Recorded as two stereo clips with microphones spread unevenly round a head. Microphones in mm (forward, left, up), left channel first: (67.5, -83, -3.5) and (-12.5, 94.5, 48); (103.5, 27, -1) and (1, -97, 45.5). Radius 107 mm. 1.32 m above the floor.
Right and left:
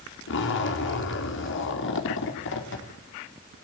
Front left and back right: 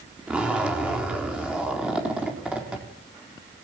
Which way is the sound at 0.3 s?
45° right.